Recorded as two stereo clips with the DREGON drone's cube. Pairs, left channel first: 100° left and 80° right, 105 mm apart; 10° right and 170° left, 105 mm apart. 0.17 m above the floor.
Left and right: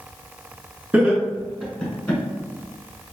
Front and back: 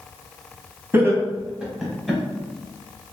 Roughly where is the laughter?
Behind right.